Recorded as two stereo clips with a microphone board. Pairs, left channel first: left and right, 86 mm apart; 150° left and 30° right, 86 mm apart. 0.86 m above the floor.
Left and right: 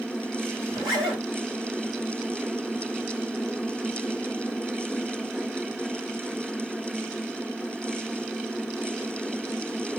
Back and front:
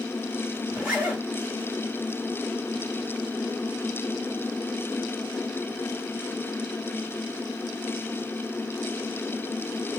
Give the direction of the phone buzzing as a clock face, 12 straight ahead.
I don't hear a phone buzzing.